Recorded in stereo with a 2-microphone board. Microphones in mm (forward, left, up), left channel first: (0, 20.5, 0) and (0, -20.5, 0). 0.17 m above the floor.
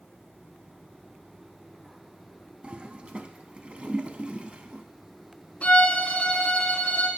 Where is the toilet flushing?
30° right (ahead or behind), 0.6 m.